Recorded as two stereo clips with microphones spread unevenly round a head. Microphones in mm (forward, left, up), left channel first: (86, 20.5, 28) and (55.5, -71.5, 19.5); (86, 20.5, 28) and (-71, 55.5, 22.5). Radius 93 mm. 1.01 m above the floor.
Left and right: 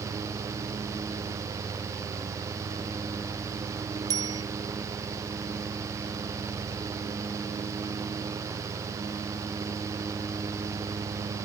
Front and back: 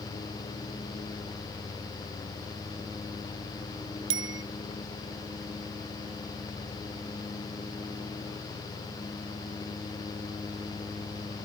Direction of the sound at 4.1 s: Straight behind.